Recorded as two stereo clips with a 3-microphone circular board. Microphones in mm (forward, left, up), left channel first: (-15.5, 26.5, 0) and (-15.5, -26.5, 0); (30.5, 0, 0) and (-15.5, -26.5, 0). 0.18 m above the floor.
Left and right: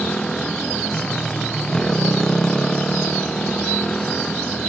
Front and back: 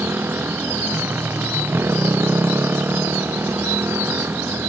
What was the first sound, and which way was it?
A motorcycle, 170° left.